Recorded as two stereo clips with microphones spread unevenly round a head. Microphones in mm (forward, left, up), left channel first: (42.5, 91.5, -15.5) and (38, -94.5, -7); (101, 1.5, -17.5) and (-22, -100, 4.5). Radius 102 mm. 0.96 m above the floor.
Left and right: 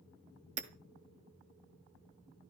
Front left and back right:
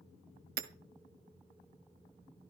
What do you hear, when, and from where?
0.6 s hammering: 140° right, 1.3 m